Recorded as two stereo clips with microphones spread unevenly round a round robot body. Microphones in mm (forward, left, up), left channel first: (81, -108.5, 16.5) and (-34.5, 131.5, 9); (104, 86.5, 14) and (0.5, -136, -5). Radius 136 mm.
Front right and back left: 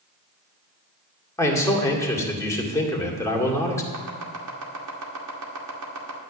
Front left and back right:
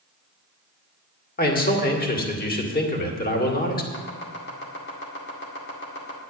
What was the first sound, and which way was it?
A man speaking, 15° left.